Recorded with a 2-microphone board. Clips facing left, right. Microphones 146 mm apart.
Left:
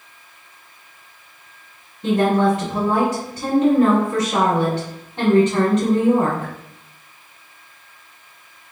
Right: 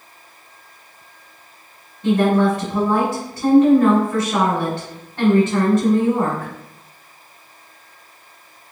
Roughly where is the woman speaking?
Centre.